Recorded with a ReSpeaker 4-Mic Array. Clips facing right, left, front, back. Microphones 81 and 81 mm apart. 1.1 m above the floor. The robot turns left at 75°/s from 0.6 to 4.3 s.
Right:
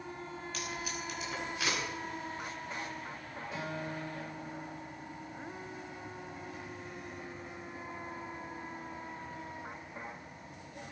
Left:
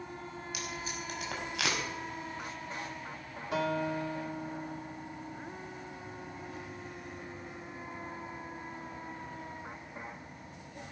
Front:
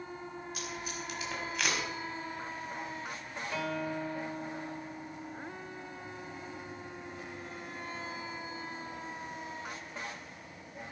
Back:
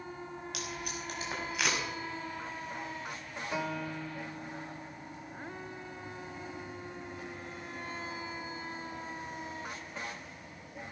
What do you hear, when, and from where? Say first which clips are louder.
0.5 s tape being pulled: right 1 dB, back 1 dB; 170° left, 5.5 m; by 1.8 s 80° left, 5.5 m
3.5 s a guitar: left 9 dB, front 1 dB; 110° left, 2.5 m; by 5.4 s 50° left, 2.5 m